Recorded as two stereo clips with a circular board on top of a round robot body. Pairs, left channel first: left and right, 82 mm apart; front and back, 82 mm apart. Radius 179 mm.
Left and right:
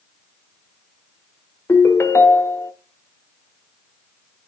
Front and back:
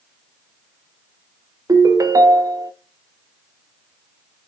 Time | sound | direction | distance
1.7 | a ringtone | 145° left | 0.9 m